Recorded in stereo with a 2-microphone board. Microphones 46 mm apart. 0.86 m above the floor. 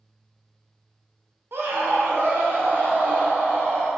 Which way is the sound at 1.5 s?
60° right (ahead or behind).